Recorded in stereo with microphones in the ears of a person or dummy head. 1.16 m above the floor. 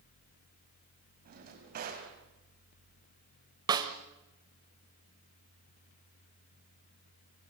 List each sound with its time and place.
1.2 s a drawer: 45° right (ahead or behind), 4.5 m
3.7 s a snare drum: 20° right (ahead or behind), 1.7 m